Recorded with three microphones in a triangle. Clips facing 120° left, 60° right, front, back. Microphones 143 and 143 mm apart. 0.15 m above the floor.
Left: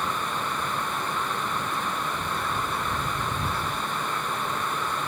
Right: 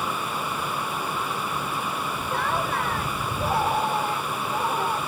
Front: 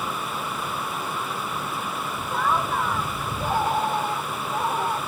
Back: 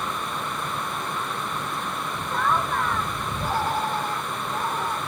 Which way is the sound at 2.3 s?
85° right.